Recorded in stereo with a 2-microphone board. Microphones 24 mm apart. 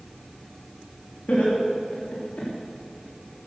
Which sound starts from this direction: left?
Laughter, at 1.3 s.